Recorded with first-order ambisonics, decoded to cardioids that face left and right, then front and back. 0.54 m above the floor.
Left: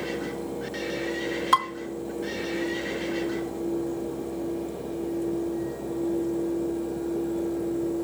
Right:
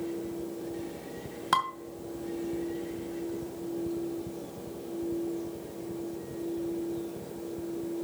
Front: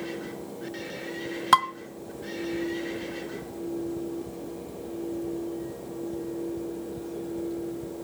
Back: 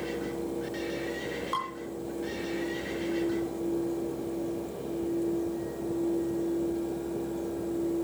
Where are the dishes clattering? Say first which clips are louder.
Left 5 dB, front 14 dB; 5° left, 2.5 m.